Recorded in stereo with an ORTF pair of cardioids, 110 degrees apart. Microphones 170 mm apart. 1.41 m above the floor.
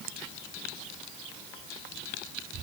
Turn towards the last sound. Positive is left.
No sound to turn to.